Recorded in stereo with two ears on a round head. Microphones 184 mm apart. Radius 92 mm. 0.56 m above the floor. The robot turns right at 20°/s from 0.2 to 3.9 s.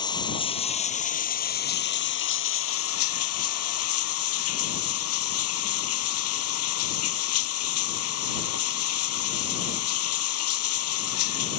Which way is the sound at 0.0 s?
20° left.